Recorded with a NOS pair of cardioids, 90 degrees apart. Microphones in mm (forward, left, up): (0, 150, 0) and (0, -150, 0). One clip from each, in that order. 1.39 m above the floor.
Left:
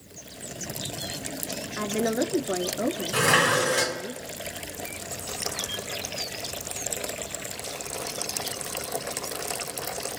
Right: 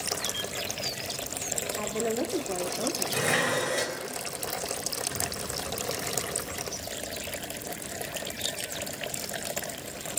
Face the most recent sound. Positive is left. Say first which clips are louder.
# left 6 dB
turn(degrees=45)